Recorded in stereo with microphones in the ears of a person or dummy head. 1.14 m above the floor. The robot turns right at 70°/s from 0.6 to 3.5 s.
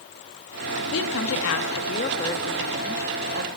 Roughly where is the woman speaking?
Ahead left.